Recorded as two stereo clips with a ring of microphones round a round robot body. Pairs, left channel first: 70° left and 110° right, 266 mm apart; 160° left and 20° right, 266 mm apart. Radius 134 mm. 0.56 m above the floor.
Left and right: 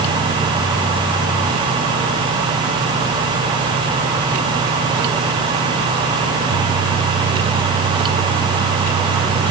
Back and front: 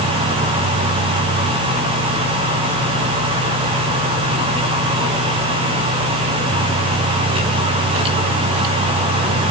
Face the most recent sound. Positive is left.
No sound to turn to.